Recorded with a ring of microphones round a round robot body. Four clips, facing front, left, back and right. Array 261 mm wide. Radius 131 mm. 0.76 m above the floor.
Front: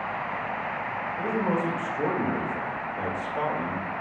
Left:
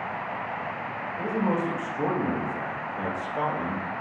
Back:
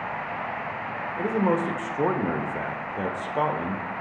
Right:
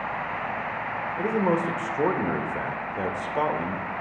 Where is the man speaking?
140° right, 0.9 m.